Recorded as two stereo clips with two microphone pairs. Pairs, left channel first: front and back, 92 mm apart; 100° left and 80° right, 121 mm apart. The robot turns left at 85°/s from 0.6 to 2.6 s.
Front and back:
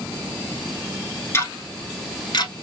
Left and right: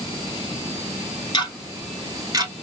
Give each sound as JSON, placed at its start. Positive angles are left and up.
{"t": 1.3, "sound": "ticking", "azimuth_deg": 60, "distance_m": 0.7}